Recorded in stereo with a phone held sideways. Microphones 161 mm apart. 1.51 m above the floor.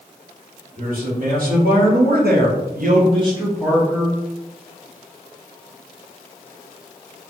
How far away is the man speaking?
About 1.6 m.